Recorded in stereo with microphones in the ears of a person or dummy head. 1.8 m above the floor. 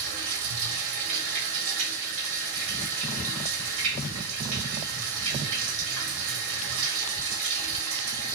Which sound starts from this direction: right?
Running water, at 0.0 s.